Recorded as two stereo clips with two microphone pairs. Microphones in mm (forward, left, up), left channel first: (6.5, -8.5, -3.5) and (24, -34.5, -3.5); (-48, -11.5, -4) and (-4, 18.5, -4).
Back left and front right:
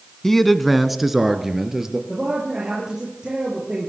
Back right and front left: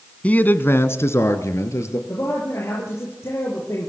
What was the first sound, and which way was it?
A man speaking, 170° right.